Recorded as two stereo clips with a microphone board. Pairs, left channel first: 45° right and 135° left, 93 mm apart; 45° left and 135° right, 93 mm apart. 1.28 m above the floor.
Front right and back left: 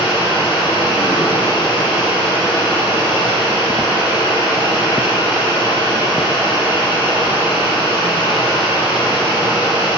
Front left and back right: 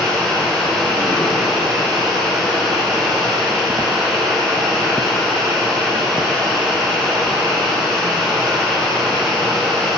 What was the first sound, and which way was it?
Running water, 45° right.